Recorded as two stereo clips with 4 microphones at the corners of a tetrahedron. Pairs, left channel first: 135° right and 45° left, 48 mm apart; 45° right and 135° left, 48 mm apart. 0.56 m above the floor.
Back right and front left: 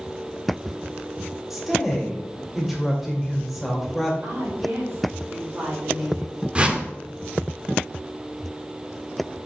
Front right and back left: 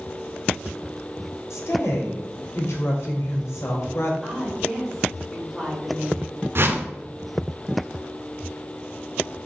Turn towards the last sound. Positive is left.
turn(degrees=110)